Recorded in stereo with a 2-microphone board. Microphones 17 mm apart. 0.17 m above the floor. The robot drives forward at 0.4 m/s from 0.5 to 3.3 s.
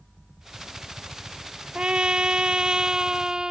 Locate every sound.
1.8 s a trumpet: 80° right; by 3.5 s 50° right (ahead or behind)